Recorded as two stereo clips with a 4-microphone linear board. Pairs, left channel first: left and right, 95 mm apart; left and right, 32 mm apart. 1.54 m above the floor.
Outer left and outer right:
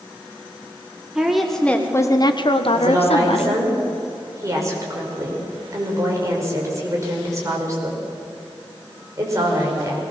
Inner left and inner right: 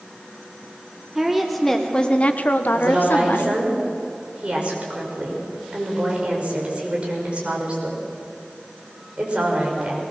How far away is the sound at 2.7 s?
About 5.5 m.